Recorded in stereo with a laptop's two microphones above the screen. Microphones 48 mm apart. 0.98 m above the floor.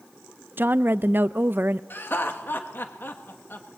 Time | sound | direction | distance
0.6 | a woman speaking | 45° right (ahead or behind) | 0.5 m
1.9 | laughter | 45° left (ahead or behind) | 1.4 m